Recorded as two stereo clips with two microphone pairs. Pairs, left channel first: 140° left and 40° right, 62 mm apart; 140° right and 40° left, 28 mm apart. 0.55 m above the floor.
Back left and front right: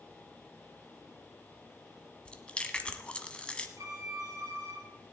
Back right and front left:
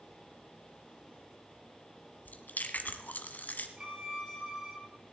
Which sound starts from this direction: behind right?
Chewing, at 2.2 s.